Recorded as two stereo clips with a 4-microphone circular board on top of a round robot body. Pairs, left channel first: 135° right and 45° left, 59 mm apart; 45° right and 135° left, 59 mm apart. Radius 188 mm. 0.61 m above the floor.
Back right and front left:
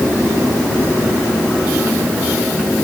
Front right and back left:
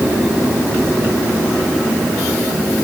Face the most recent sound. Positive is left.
No sound to turn to.